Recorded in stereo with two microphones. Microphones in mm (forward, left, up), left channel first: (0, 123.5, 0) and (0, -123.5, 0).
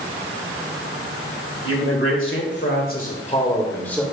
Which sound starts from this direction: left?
A man speaking, at 1.6 s.